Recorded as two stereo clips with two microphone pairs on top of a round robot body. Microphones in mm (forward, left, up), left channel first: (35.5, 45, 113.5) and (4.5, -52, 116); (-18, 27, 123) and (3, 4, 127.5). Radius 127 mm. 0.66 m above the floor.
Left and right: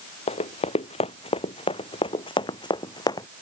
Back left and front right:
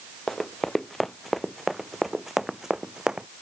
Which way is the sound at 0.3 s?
50° left.